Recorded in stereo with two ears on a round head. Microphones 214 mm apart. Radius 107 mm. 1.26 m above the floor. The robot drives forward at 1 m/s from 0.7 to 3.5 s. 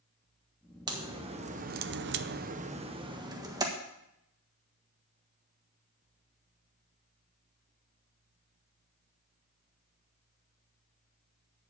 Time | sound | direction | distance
0.9 | a crack | 20° right (ahead or behind) | 1.3 m